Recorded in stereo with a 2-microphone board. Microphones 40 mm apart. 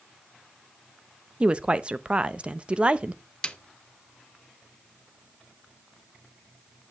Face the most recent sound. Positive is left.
turn(degrees=20)  # may be behind; listen again after turning